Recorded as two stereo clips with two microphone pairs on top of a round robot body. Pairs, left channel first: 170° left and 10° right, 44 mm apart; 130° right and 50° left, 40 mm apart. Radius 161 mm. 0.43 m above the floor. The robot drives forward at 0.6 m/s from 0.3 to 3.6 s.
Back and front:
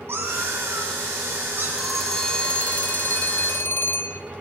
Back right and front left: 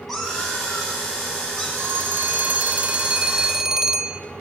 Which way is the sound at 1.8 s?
80° left.